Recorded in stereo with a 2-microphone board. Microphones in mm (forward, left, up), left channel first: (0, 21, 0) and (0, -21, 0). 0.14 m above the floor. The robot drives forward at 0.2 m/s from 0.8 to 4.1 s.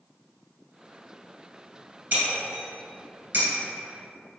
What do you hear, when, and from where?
2.1 s breaking glass: 50° right (ahead or behind), 1.6 m; by 3.5 s 55° right (ahead or behind), 1.6 m